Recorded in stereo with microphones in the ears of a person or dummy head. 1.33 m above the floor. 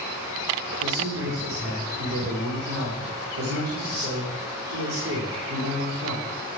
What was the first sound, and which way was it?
A man speaking, 80° right.